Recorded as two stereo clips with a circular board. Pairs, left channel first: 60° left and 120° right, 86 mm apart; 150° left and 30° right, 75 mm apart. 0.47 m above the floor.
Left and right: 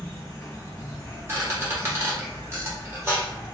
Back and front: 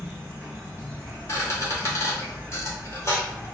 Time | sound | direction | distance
0.0 | an insect | 20° left | 1.3 m
1.3 | a squeak | 170° right | 1.1 m